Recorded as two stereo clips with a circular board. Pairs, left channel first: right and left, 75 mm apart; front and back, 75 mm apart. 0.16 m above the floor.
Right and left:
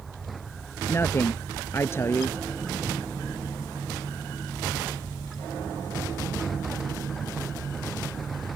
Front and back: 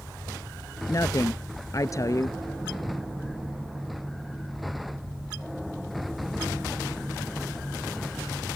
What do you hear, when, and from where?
0.9 s a woman speaking: 40° right